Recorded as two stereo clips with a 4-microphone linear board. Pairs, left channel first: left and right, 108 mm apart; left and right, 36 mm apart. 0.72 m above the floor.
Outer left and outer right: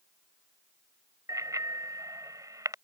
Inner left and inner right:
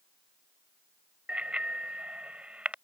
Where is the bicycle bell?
35° right (ahead or behind).